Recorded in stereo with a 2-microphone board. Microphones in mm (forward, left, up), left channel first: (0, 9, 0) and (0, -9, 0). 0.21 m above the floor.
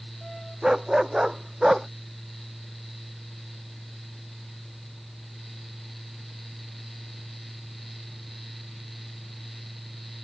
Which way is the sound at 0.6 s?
40° right (ahead or behind).